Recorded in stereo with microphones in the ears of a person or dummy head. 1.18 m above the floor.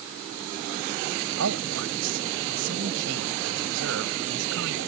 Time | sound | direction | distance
1.4 | a man speaking | 75° right (ahead or behind) | ?